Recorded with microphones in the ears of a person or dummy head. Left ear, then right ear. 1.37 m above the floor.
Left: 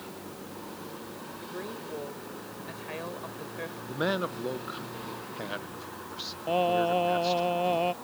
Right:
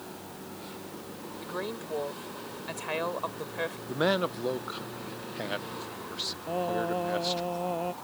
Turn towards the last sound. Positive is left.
turn(degrees=75)  # may be behind; listen again after turning